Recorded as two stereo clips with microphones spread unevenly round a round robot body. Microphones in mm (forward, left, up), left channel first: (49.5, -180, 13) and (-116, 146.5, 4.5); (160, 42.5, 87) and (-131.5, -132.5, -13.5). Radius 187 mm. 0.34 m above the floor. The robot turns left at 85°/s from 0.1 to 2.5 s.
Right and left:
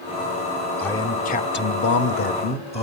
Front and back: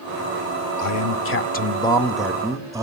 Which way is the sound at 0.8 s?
25° left.